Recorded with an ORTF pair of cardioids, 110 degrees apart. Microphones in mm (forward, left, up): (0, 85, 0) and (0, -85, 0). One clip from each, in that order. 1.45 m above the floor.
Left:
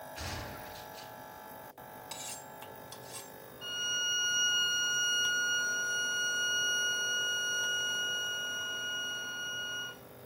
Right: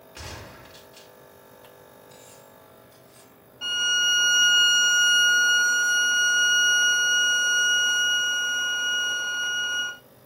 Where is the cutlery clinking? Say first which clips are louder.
Left 4 dB; 60° left, 2 m.